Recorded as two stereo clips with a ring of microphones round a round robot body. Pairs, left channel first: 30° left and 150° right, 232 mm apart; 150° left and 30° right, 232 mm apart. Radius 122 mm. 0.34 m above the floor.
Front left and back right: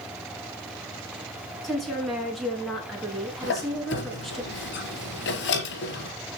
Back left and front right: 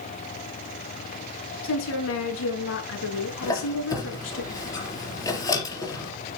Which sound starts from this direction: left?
A squeak, at 3.4 s.